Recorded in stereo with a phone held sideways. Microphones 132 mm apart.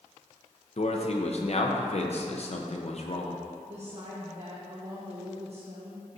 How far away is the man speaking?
About 0.8 m.